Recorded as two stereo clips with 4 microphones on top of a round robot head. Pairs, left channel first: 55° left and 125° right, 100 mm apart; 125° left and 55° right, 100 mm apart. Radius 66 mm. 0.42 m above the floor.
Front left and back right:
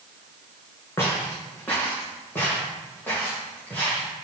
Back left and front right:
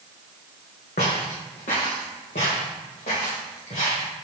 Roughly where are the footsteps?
Behind left.